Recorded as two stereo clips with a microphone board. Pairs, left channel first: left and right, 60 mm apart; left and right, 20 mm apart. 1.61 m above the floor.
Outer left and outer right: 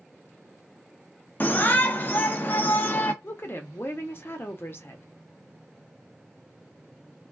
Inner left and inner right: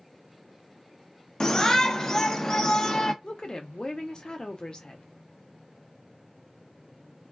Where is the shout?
35° left (ahead or behind), 0.6 m.